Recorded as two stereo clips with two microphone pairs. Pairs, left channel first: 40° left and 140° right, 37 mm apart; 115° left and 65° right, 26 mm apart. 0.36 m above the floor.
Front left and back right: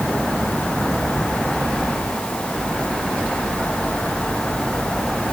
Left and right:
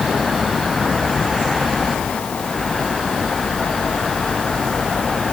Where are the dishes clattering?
No dishes clattering in this recording.